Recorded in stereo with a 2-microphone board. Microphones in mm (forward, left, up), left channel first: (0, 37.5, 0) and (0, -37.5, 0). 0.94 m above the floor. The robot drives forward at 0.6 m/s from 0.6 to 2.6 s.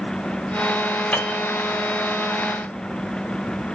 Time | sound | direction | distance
1.1 | a piano | 20° left (ahead or behind) | 3 m